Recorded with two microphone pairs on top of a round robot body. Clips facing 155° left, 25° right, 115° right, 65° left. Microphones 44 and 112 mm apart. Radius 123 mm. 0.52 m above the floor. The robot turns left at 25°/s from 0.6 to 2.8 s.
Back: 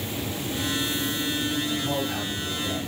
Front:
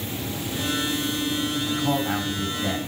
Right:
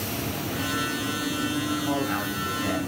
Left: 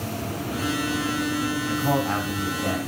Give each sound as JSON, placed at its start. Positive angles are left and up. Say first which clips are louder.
{"t": 1.7, "sound": "a man speaking", "louder": "front 3 dB, left 5 dB", "azimuth_deg": 35, "distance_m": 6.0}